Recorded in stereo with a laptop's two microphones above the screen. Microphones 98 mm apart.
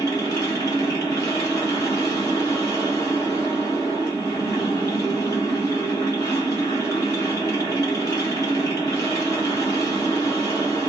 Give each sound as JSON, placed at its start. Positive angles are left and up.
{"t": 0.0, "sound": "a machine running", "side_deg": 35, "distance_m": 1.8}